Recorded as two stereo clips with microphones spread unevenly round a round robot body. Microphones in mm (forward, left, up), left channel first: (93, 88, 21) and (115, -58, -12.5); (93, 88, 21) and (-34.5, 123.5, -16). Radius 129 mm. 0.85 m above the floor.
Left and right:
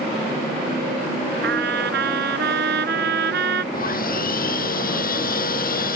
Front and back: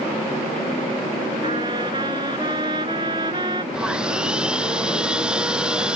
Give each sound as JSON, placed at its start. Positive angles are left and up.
{"t": 1.4, "sound": "a trumpet", "azimuth_deg": -120}
{"t": 3.7, "sound": "sawing", "azimuth_deg": 80}